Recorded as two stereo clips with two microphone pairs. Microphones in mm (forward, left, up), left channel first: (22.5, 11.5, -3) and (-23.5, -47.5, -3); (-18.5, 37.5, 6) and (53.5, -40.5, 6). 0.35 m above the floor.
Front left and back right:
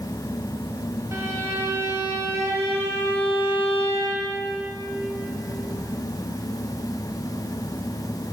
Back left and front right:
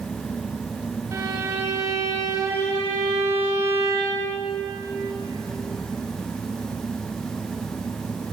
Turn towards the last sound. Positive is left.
turn(degrees=-95)